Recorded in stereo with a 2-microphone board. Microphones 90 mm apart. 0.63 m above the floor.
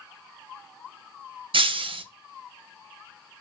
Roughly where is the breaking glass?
Right.